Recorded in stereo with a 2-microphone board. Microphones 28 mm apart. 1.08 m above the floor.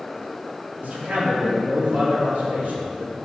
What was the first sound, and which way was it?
A man speaking, 70° right (ahead or behind).